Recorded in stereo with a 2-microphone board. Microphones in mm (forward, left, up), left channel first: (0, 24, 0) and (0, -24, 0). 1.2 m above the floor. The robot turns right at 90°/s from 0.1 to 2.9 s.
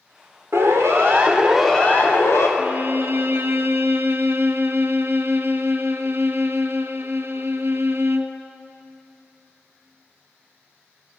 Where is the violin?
30° right (ahead or behind), 1.4 m; by 8.4 s 55° right (ahead or behind), 1.4 m.